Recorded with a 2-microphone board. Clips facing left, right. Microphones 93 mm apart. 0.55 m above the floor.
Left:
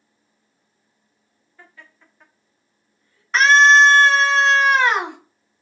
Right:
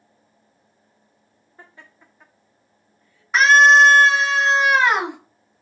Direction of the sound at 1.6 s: 30° right (ahead or behind).